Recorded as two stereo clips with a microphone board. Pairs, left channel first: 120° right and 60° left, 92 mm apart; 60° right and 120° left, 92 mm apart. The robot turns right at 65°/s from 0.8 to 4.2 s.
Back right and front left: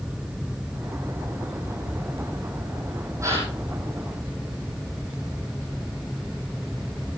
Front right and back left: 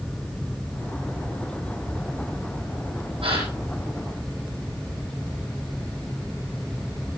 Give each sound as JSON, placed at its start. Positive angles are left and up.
{"t": 3.2, "sound": "a gasp", "azimuth_deg": 115, "distance_m": 8.0}